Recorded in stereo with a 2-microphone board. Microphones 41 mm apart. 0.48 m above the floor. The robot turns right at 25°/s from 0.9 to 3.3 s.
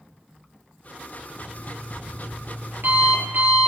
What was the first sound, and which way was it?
An alarm clock, 100° right.